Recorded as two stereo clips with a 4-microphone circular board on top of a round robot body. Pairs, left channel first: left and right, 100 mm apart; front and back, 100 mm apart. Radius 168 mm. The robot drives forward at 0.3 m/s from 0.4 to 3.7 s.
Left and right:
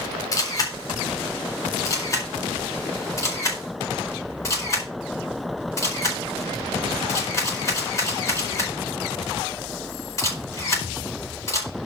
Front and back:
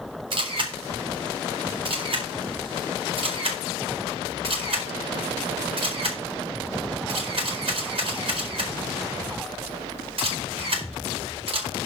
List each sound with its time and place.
0.3 s a camera shutter: 145° left, 4 m; by 11.7 s 150° left, 4.5 m